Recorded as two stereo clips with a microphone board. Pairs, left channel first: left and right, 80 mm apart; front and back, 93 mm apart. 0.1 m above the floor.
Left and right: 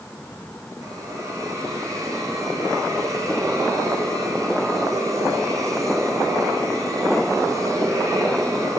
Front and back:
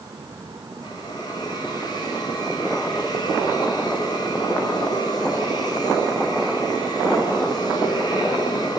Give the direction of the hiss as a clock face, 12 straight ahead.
1 o'clock.